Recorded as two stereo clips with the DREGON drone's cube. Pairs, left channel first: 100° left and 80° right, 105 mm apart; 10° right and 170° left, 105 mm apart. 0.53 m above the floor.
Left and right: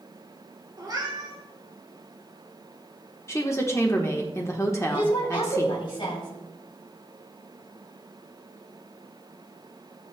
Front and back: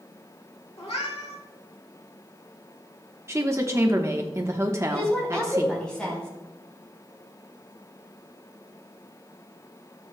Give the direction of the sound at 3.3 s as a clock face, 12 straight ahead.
8 o'clock.